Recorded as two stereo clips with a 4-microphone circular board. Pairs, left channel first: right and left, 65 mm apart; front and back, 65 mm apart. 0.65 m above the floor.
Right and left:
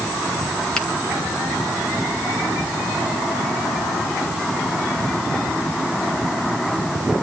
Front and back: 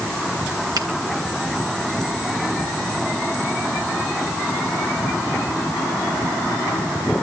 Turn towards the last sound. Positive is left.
turn(degrees=-170)